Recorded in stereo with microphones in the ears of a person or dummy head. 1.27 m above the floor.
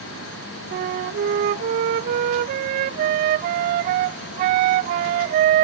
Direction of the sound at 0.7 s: 30° right (ahead or behind).